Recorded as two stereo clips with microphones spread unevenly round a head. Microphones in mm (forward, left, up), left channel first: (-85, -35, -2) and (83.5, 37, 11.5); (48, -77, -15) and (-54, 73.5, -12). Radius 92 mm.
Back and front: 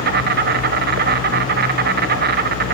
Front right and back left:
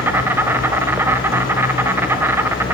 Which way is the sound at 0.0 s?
45° left.